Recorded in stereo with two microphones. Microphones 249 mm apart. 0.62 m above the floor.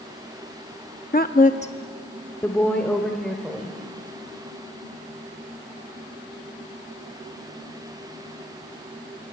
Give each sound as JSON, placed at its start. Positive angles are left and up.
{"t": 1.1, "sound": "a woman speaking", "side_deg": 40, "distance_m": 0.7}